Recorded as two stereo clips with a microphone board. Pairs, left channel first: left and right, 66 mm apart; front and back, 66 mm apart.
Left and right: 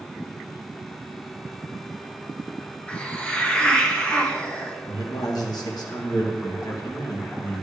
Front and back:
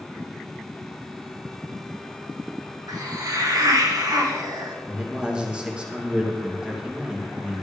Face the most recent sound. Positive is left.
turn(degrees=105)